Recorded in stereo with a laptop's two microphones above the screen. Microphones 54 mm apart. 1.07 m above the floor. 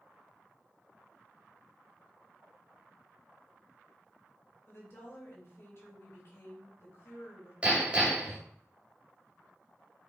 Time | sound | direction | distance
4.7 | a woman speaking | 45° left (ahead or behind) | 4 m
7.6 | hammering | 20° right (ahead or behind) | 2.5 m